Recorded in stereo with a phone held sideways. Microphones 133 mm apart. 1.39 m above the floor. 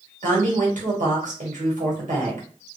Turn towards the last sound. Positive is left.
turn(degrees=-70)  # may be behind; listen again after turning